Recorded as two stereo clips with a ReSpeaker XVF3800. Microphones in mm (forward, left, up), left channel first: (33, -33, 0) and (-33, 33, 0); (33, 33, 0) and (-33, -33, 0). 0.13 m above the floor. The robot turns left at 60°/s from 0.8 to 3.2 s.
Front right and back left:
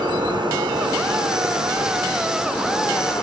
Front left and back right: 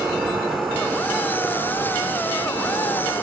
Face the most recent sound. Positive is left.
turn(degrees=-5)